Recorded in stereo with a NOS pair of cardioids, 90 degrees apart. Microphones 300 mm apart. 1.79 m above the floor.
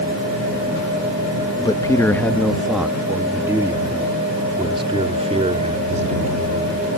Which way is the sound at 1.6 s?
15° left.